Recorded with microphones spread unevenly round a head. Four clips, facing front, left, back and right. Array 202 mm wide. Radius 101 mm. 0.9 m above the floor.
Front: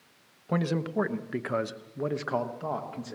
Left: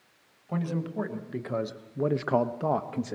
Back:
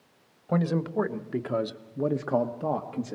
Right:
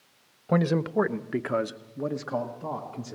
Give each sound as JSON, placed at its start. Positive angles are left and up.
{"t": 0.5, "sound": "a man speaking", "azimuth_deg": -75, "distance_m": 1.0}